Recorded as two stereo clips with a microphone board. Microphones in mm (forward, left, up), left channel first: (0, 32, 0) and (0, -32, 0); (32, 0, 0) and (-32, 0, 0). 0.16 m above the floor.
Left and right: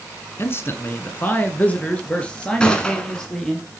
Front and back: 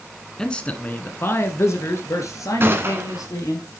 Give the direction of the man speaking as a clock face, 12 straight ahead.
10 o'clock.